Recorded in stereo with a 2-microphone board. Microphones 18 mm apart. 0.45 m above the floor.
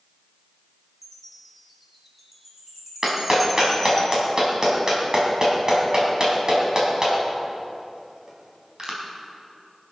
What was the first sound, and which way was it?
A chime, 10° right (ahead or behind).